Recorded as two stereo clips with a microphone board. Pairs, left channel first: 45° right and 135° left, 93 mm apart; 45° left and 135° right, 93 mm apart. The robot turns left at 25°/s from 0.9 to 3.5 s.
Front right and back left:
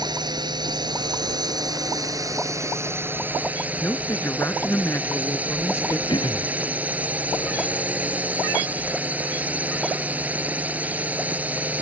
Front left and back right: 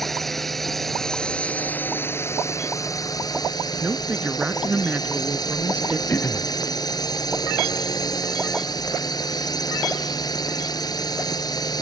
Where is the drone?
130° left; by 11.8 s 65° left.